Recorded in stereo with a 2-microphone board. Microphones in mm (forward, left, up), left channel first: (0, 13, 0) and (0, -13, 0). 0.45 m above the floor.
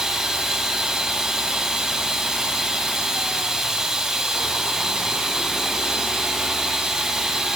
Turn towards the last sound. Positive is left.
turn(degrees=-20)  # may be behind; listen again after turning